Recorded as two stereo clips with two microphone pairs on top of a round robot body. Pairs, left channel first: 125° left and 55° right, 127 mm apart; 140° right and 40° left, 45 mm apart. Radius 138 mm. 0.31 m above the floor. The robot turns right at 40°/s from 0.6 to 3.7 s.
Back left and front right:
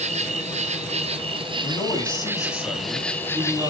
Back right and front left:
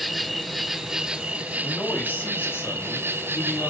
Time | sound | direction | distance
0.0 | an insect | 50° right | 0.9 m
1.6 | a man speaking | 155° left | 4.5 m